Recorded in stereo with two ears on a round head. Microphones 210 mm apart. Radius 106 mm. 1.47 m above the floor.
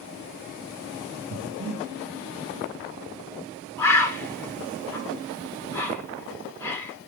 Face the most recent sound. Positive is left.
turn(degrees=10)  # may be behind; listen again after turning